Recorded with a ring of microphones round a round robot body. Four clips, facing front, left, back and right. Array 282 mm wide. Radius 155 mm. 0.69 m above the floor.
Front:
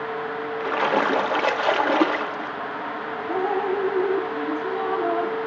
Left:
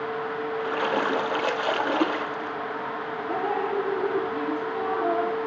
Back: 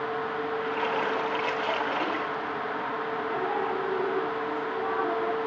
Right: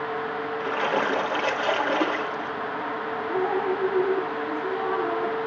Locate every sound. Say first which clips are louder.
0.6 s a splash: right 1 dB, front 9 dB; 5° left, 1.3 m
3.3 s dripping: right 2 dB, front 8 dB; 50° left, 9 m